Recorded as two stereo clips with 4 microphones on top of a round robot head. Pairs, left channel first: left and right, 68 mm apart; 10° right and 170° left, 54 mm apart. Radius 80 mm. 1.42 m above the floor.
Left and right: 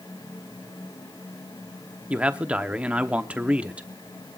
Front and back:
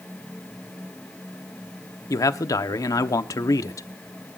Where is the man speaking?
15° right, 0.9 m.